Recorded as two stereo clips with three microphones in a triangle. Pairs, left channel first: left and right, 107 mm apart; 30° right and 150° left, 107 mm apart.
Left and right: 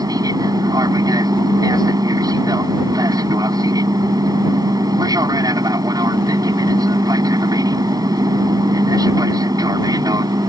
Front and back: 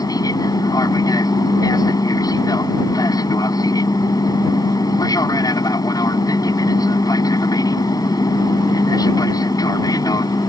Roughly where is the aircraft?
Ahead right.